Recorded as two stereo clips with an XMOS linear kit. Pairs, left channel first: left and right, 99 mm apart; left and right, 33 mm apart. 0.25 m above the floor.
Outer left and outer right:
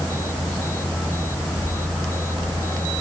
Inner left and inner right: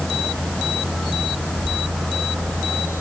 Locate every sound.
Only background noise.